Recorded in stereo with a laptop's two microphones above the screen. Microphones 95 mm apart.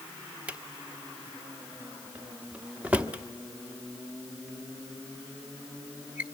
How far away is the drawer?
About 0.9 m.